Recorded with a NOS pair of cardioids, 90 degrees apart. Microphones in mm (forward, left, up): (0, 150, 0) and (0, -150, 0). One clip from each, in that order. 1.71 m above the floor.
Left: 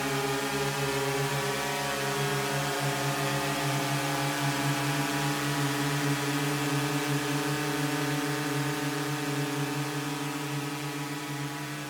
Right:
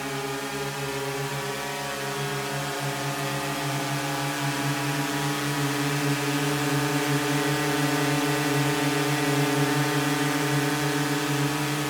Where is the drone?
10° left; by 11.9 s 75° right.